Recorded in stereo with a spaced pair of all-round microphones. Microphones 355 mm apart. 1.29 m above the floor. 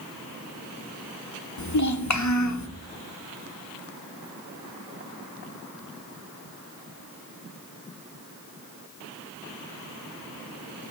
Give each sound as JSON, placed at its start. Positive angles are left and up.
{"t": 1.6, "sound": "a child speaking", "side_deg": 50, "distance_m": 0.6}